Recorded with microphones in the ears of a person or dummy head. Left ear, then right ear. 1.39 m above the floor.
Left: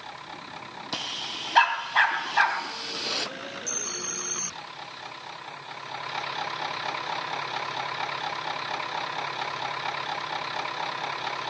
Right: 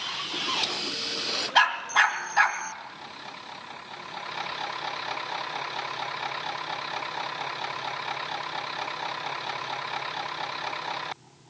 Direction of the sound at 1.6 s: 5° right (ahead or behind).